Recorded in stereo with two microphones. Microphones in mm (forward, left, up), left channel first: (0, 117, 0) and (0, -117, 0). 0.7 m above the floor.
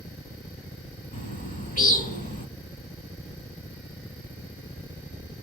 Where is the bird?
35° left (ahead or behind), 1.1 m.